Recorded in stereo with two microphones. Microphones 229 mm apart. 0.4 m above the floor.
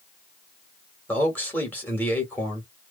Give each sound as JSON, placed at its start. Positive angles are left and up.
{"t": 1.1, "sound": "a man speaking", "side_deg": 10, "distance_m": 1.4}